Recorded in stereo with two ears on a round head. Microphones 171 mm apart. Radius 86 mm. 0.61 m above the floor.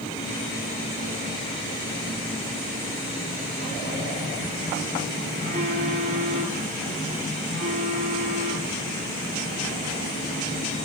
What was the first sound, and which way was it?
A phone buzzing, 40° right (ahead or behind).